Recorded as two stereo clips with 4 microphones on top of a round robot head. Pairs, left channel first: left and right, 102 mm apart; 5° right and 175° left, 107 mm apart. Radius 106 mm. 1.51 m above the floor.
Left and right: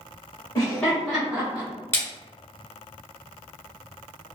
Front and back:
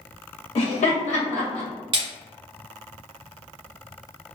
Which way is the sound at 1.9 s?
150° left.